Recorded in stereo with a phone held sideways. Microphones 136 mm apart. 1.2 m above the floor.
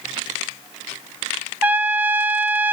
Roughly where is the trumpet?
Centre.